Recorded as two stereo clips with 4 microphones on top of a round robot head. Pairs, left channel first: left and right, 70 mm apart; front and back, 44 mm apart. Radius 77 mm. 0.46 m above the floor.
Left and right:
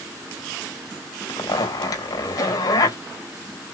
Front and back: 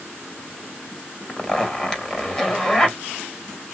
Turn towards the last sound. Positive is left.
turn(degrees=75)